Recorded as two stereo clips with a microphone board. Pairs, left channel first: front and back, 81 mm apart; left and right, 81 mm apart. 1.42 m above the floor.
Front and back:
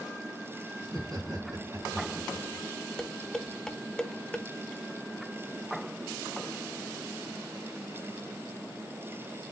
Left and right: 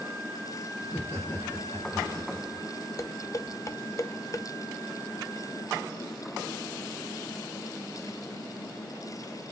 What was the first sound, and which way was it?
Laughter, 135° left.